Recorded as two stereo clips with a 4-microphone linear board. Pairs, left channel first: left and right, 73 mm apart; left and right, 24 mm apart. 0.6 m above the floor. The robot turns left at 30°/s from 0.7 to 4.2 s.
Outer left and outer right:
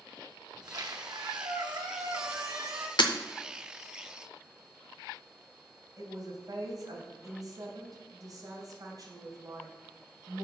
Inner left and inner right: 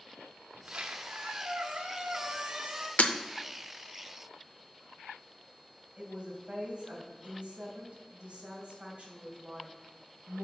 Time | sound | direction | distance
0.5 | a squeak | 75° right | 1.0 m
3.0 | breaking glass | 85° left | 0.6 m
6.0 | a woman speaking | 55° right (ahead or behind) | 2.5 m